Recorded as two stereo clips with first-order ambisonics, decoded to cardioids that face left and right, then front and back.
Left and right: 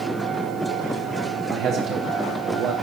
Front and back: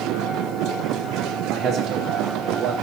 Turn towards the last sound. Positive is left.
turn(degrees=-130)